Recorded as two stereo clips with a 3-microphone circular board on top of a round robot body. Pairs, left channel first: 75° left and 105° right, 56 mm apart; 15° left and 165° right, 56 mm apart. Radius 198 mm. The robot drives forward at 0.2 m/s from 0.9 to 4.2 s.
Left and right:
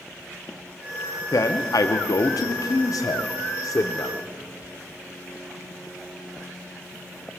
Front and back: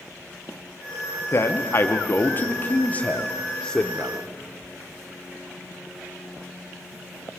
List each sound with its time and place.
1.3 s a man speaking: 60° left, 0.9 m; by 4.2 s 95° left, 0.8 m